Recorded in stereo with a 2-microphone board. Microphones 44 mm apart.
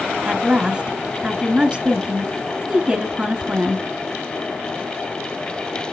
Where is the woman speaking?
20° right (ahead or behind), 1.1 m.